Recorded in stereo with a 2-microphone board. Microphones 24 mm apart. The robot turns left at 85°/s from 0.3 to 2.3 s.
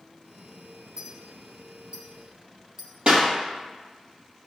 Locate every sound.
1.0 s a clink: 40° right (ahead or behind), 2.0 m; by 2.9 s 15° right (ahead or behind), 2.0 m
3.1 s a clap: 50° right (ahead or behind), 3 m